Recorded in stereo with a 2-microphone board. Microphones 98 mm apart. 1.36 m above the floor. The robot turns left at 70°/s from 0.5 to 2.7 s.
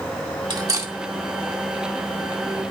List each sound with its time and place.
0.5 s cutlery clinking: 50° right (ahead or behind), 1.9 m; by 0.9 s 25° right (ahead or behind), 1.9 m